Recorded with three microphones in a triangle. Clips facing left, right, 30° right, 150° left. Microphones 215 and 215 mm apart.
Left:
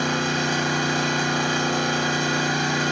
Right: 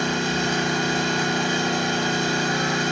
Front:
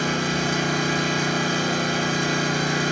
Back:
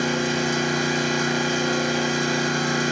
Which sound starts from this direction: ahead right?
An engine running, at 0.0 s.